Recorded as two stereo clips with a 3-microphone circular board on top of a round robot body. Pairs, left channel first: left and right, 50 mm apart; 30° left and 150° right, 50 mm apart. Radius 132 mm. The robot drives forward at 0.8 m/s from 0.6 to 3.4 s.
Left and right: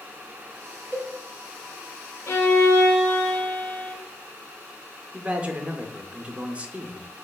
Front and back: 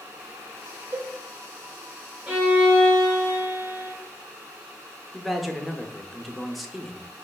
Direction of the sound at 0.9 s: 155° left.